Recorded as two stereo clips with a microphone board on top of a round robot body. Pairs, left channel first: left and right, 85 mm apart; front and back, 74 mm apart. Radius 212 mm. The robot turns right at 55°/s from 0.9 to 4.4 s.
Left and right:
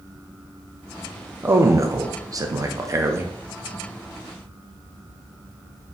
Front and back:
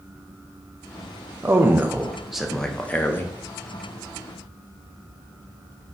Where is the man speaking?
145° right, 0.7 m; by 3.3 s 40° right, 0.7 m.